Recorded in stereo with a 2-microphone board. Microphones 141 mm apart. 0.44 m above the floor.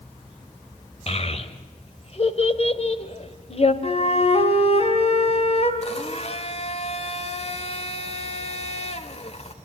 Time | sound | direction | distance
1.1 | a child speaking | 45° left (ahead or behind) | 1.7 m
3.8 | a flute | 50° left (ahead or behind) | 2 m
5.8 | a blender | 50° left (ahead or behind) | 1.4 m